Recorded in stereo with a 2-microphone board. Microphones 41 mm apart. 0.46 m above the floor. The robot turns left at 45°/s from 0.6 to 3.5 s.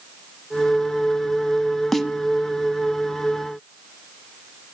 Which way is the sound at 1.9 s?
5° left (ahead or behind).